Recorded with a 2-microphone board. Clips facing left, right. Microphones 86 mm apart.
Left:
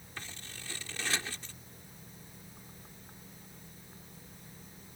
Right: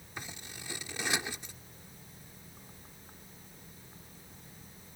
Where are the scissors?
15° right (ahead or behind).